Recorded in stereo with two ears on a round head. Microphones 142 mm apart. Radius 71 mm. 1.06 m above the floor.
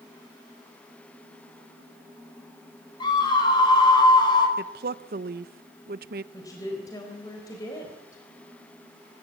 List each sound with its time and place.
3.0 s a scream: 30° left (ahead or behind), 5.5 m
4.6 s a woman speaking: 65° right (ahead or behind), 0.7 m
6.3 s a woman speaking: 25° left (ahead or behind), 4 m